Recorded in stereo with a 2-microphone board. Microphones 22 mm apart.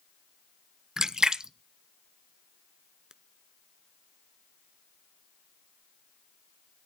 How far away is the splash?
About 0.7 m.